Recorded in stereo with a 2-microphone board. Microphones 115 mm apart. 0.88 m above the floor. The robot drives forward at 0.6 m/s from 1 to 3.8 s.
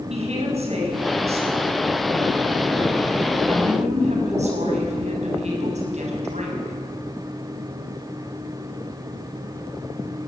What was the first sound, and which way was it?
A woman speaking, 70° right (ahead or behind).